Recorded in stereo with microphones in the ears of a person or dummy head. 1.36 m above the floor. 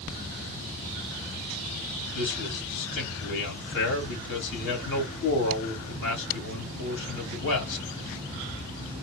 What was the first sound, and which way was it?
A man speaking, 65° left (ahead or behind).